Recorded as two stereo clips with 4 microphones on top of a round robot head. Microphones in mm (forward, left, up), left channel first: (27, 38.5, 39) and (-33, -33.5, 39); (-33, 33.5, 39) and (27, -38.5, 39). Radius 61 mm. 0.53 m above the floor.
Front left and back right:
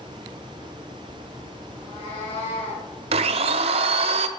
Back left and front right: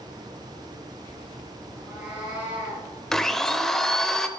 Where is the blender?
145° right, 0.6 m.